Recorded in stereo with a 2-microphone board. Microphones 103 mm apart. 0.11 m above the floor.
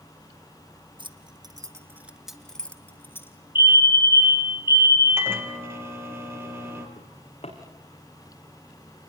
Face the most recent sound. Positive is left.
turn(degrees=80)